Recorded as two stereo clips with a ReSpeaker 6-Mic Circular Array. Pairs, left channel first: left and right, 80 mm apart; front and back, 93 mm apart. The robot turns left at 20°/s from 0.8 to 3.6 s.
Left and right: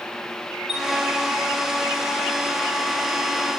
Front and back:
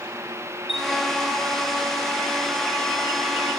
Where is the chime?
5° right, 5.5 m.